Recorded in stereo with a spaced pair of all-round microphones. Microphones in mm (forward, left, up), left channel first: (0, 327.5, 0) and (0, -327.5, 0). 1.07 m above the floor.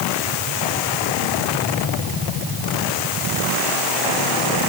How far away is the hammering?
I don't hear hammering.